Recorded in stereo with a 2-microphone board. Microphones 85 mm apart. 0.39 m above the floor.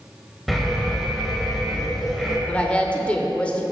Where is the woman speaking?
15° left (ahead or behind), 0.9 m.